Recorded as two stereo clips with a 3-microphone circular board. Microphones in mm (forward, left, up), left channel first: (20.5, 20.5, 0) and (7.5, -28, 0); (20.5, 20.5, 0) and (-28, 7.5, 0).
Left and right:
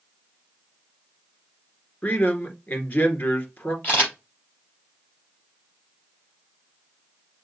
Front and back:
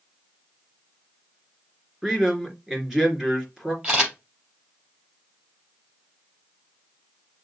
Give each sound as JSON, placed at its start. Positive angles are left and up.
{"t": 2.0, "sound": "a man speaking", "azimuth_deg": 120, "distance_m": 2.0}
{"t": 3.8, "sound": "a camera shutter", "azimuth_deg": 130, "distance_m": 4.0}